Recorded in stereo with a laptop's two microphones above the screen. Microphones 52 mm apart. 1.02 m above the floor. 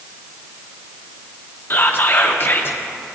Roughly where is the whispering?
Left.